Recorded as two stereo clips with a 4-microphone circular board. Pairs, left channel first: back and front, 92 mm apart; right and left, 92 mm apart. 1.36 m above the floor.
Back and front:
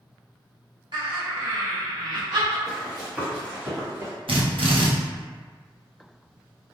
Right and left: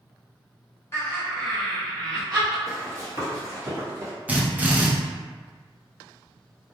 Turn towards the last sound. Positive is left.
turn(degrees=15)